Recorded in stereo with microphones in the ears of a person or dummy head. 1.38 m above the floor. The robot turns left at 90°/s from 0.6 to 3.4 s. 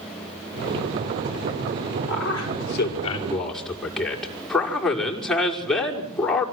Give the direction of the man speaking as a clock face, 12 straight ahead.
8 o'clock.